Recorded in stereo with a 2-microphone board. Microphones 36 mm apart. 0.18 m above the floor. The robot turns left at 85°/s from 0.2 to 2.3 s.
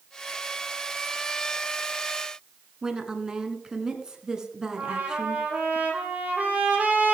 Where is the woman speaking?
25° right (ahead or behind), 1.7 m.